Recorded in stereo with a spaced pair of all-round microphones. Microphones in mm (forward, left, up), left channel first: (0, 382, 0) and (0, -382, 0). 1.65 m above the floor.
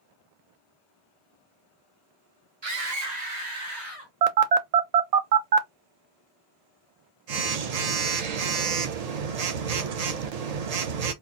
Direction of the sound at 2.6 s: 35° right (ahead or behind).